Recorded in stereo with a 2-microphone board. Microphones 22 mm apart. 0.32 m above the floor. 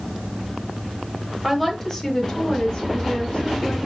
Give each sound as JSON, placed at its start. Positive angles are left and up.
{"t": 1.4, "sound": "a woman speaking", "side_deg": 0, "distance_m": 1.1}